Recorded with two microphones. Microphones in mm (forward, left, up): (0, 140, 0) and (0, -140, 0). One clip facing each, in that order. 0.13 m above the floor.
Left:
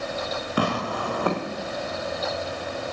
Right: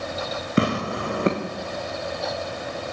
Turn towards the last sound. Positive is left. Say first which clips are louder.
# right 4 dB
turn(degrees=-25)  # may be behind; listen again after turning